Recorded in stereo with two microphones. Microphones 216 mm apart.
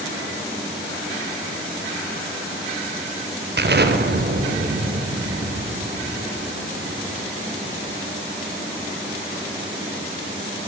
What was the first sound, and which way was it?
An explosion, 50° right (ahead or behind).